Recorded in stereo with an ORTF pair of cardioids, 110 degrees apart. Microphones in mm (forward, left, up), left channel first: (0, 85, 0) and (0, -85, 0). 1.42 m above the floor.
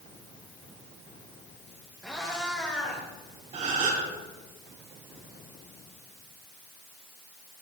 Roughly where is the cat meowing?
Ahead.